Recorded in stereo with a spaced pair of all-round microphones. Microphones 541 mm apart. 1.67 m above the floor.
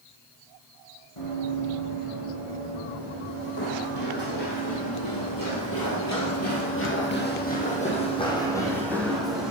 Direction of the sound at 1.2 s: 70° left (ahead or behind).